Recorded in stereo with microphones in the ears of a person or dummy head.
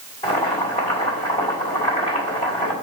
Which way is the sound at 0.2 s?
30° left (ahead or behind).